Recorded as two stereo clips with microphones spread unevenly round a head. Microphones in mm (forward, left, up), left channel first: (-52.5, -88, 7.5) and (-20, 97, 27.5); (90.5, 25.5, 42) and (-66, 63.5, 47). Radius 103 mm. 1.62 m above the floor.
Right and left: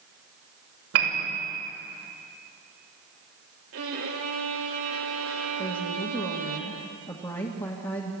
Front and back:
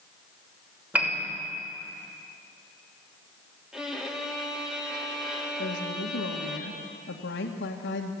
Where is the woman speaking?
30° right, 2.0 m.